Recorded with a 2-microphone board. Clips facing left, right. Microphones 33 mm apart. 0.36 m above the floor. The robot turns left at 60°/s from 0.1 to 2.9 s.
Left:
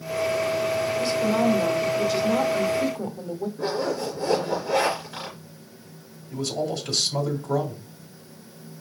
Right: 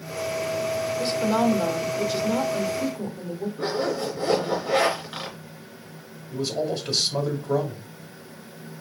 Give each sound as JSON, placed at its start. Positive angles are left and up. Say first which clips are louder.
{"t": 1.0, "sound": "a woman speaking", "louder": "right 1 dB", "side_deg": -25, "distance_m": 1.0}
{"t": 3.6, "sound": "a zipper", "louder": "right 1 dB", "side_deg": -70, "distance_m": 3.5}
{"t": 6.3, "sound": "a man speaking", "louder": "right 1 dB", "side_deg": -20, "distance_m": 1.6}